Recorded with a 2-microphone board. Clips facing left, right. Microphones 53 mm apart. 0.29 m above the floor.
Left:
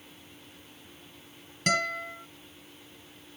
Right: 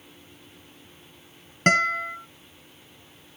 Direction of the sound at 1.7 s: 50° right (ahead or behind).